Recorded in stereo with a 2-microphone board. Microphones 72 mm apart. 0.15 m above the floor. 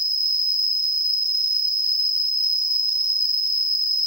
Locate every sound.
0.0 s an insect: 60° left (ahead or behind), 0.7 m